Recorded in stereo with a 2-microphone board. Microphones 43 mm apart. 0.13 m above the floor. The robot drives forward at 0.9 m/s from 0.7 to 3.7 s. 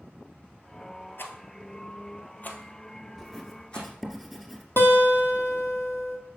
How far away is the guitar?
About 1.4 m.